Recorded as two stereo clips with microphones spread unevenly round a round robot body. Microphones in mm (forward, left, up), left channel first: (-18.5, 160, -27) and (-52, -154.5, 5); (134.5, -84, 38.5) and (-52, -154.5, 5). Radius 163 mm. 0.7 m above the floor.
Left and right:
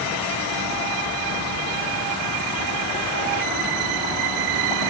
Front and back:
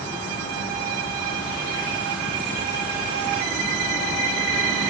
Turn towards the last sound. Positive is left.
No sound to turn to.